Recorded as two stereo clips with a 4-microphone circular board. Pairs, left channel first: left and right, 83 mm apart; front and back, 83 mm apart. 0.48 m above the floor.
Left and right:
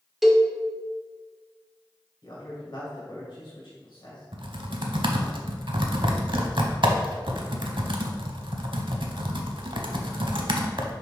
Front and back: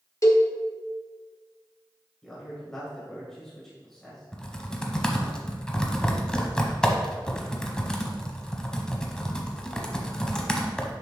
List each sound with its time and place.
0.2 s a cowbell: straight ahead, 0.9 m
2.2 s a man speaking: 85° left, 2 m
4.3 s typing on a keyboard: 80° right, 0.8 m